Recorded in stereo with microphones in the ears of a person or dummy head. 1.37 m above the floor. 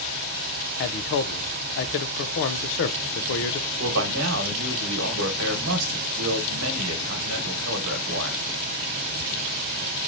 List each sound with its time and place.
0.8 s a man speaking: 65° left (ahead or behind), 0.5 m
3.8 s a man speaking: 85° right, 1.1 m